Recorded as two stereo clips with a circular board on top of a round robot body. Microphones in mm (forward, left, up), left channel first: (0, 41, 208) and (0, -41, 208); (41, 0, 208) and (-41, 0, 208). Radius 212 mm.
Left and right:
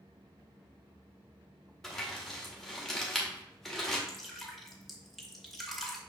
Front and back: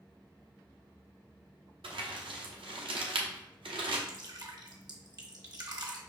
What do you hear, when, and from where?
1.8 s crumpling: 175° left, 0.8 m
4.1 s dripping: straight behind, 1.5 m